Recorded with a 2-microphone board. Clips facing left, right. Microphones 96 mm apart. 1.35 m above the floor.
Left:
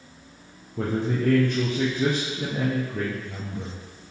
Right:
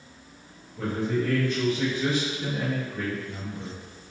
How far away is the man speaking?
About 0.6 m.